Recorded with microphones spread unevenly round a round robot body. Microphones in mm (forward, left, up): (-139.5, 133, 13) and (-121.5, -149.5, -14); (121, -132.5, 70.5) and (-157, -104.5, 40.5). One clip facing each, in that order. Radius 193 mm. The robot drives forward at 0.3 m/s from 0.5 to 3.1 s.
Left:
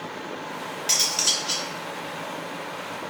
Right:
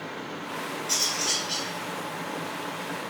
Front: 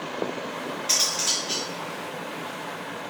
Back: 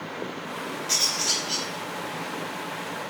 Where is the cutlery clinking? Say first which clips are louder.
Even, even; 75° left, 2 m; by 1.7 s 80° left, 2 m.